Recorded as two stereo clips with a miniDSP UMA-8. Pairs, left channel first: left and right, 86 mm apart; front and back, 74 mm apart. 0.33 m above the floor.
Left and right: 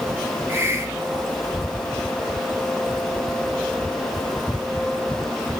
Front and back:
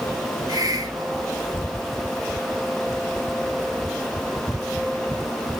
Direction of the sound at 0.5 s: 150° right.